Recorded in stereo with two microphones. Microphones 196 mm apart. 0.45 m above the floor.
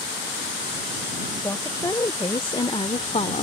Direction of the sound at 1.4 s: 15° left (ahead or behind).